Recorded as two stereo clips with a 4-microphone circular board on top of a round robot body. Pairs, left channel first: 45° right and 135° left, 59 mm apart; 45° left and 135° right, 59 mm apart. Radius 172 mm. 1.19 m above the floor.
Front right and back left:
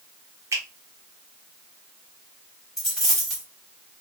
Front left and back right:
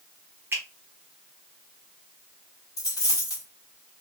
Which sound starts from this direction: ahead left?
A dropped coin, at 2.8 s.